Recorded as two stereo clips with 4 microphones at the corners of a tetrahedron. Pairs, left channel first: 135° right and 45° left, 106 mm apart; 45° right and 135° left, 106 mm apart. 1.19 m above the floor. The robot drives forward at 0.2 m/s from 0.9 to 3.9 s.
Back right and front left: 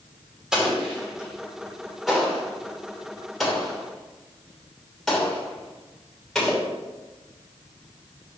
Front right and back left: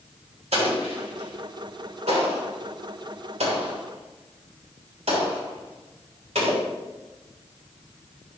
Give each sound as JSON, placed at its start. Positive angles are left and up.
{"t": 0.5, "sound": "an explosion", "azimuth_deg": 130, "distance_m": 2.5}